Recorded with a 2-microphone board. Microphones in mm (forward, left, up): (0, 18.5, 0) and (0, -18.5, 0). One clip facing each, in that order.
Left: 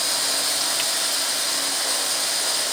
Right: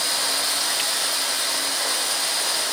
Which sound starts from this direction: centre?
Running water, at 0.0 s.